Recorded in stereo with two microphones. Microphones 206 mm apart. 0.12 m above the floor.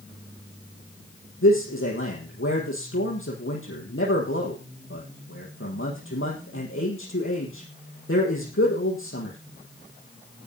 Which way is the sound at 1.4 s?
80° left.